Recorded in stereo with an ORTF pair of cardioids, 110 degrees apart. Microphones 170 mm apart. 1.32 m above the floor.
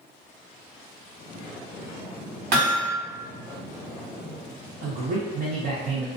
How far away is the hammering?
About 1.4 m.